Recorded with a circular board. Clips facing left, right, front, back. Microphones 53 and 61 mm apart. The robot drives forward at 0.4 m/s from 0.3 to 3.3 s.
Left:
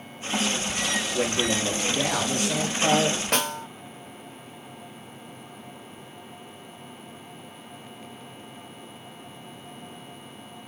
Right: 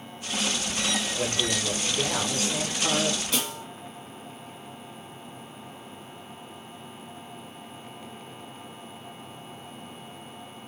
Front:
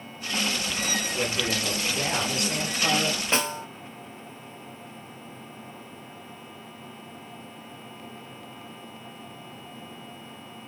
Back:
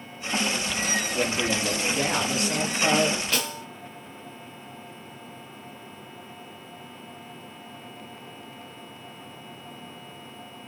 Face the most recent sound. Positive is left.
turn(degrees=60)